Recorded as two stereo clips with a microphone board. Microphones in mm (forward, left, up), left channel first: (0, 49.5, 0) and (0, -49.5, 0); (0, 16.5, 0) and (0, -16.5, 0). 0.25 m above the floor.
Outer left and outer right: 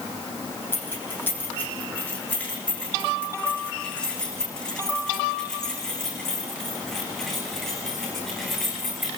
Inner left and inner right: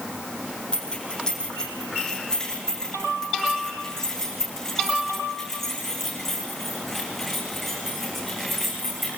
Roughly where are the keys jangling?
Centre.